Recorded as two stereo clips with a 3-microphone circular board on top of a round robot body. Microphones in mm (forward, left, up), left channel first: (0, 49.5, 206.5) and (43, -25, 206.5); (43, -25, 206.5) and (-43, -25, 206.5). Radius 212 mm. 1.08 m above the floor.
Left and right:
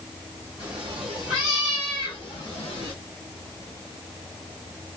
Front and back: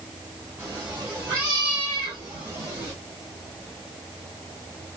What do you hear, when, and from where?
0.6 s a cat meowing: 85° right, 0.9 m; by 2.9 s 115° left, 1.1 m